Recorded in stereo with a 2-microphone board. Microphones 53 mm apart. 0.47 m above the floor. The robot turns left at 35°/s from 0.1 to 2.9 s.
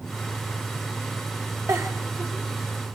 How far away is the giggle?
About 2.0 m.